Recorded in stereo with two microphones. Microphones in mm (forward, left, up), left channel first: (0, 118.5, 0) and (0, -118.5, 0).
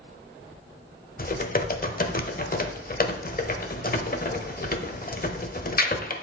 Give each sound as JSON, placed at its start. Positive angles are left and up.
{"t": 1.2, "sound": "typing on a keyboard", "side_deg": 40, "distance_m": 0.8}